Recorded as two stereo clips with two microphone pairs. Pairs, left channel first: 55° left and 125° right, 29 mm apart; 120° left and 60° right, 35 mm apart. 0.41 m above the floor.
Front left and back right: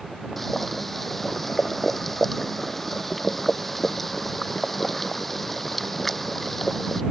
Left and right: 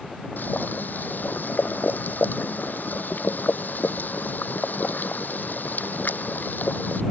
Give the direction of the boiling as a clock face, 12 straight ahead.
7 o'clock.